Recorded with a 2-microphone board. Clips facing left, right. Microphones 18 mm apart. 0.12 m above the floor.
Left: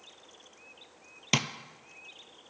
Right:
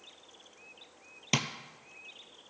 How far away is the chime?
I don't hear a chime.